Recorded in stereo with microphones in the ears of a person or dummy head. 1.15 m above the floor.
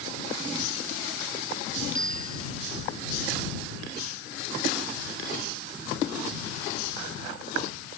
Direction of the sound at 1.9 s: 35° left (ahead or behind).